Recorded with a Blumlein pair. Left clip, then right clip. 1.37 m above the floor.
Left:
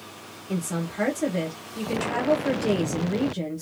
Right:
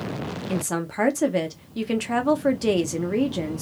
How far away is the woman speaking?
About 0.7 m.